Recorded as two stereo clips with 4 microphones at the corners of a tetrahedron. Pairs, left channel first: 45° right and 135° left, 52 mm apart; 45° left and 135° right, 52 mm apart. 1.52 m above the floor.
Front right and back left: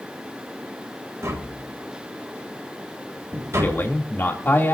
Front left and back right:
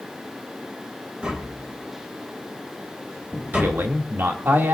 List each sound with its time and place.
1.2 s tapping: 155° left, 4 m
3.5 s a man speaking: 90° right, 2.5 m